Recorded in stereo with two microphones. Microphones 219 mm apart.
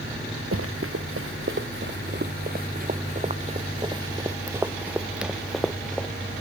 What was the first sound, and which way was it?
Running footsteps, 70° right (ahead or behind).